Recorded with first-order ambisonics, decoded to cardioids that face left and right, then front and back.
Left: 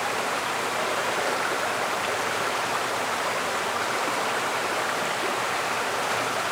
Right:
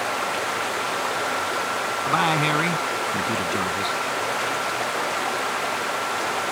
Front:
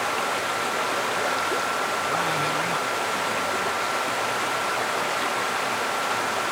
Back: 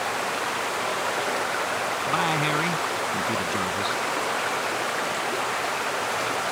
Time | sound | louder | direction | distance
2.1 | a man speaking | right 6 dB, back 1 dB | 105° right | ?